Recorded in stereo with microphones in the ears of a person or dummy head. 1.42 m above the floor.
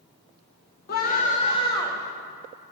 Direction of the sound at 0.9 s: 50° left (ahead or behind).